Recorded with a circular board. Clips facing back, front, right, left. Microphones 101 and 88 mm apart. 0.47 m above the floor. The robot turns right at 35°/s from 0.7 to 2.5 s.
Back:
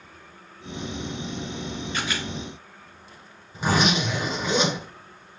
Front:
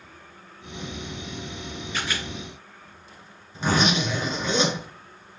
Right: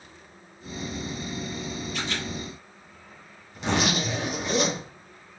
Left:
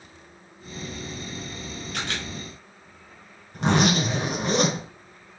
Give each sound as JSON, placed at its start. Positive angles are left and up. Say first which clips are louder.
{"t": 1.9, "sound": "a camera shutter", "louder": "even, left 2 dB", "azimuth_deg": 80, "distance_m": 5.0}
{"t": 3.5, "sound": "a zipper", "louder": "even, left 4 dB", "azimuth_deg": 100, "distance_m": 4.5}